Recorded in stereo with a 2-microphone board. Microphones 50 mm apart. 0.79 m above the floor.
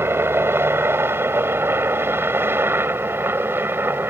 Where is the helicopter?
50° right (ahead or behind); by 4.1 s 45° right (ahead or behind).